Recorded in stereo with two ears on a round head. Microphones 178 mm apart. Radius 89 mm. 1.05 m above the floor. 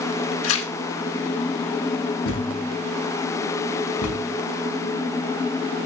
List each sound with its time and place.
0.4 s tearing paper: 80° left, 1.4 m
2.2 s a thud: 85° left, 5.5 m